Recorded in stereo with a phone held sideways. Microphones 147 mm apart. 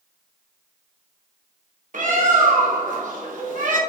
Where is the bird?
60° right (ahead or behind), 0.7 m.